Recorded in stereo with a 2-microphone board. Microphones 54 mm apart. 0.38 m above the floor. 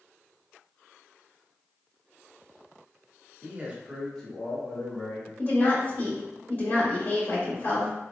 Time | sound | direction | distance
3.4 | a man speaking | 35° right (ahead or behind) | 1.1 m
5.4 | a woman speaking | 40° left (ahead or behind) | 1.4 m